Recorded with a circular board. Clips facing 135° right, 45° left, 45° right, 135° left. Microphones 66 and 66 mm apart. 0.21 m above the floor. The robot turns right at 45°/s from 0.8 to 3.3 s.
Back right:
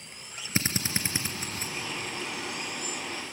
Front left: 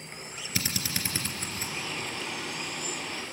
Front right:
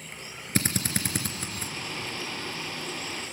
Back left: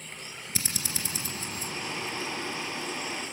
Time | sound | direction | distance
0.6 | a drill | 80° right | 2.5 m